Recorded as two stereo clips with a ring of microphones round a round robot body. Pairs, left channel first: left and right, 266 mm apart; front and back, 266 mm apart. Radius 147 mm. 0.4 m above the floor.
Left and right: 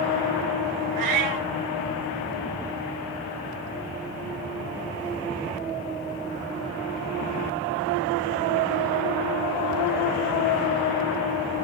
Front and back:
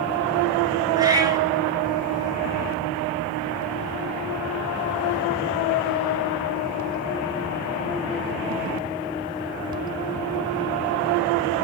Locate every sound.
1.0 s a cat meowing: 105° right, 3 m